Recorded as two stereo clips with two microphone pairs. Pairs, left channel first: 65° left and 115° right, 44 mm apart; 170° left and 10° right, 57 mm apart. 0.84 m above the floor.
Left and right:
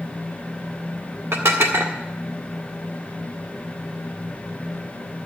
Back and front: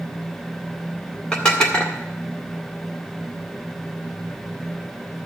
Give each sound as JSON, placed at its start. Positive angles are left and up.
{"t": 1.3, "sound": "dishes clattering", "azimuth_deg": -110, "distance_m": 1.8}